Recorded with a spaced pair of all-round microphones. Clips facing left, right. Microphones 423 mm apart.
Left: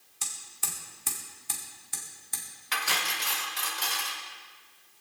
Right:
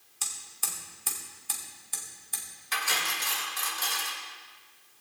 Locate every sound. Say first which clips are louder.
0.2 s hammering: left 1 dB; 35° left (ahead or behind), 2.5 m
2.7 s cutlery clinking: left 1 dB; 75° left (ahead or behind), 2.5 m